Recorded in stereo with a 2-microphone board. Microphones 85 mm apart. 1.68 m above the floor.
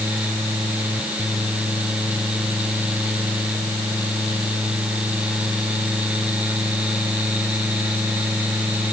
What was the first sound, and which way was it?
Only background noise.